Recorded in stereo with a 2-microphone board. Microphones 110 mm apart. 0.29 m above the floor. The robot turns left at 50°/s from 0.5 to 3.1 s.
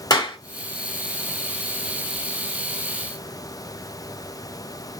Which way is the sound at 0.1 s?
40° left (ahead or behind).